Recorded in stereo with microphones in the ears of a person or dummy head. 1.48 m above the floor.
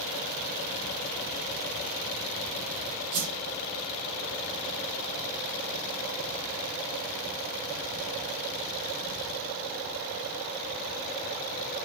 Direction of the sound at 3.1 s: 45° right (ahead or behind).